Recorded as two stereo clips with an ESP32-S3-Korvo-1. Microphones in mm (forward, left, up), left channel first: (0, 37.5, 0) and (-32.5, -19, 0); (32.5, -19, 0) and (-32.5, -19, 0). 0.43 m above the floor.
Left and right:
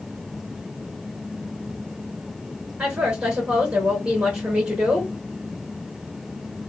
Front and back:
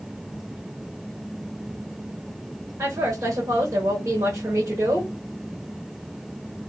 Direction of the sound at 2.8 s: 170° left.